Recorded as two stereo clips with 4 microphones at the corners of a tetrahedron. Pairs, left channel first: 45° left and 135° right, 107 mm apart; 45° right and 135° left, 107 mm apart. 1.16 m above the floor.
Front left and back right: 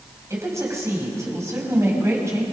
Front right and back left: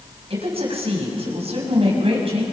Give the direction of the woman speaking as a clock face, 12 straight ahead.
7 o'clock.